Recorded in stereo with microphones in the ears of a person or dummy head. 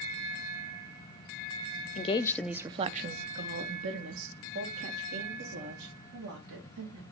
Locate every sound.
1.9 s a woman speaking: 35° left (ahead or behind), 0.6 m; by 7.0 s 80° right, 3.5 m